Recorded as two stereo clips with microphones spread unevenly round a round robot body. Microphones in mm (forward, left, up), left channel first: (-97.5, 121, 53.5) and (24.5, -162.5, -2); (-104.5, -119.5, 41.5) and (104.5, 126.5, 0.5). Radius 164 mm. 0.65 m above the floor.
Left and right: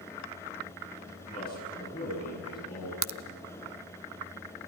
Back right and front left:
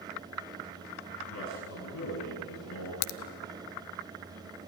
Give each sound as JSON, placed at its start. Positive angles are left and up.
{"t": 1.3, "sound": "a man speaking", "azimuth_deg": -175, "distance_m": 7.0}
{"t": 3.0, "sound": "a crack", "azimuth_deg": -120, "distance_m": 0.8}